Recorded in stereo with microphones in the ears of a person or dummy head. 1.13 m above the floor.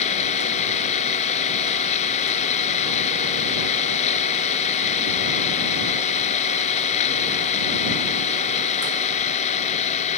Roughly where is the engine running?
Left.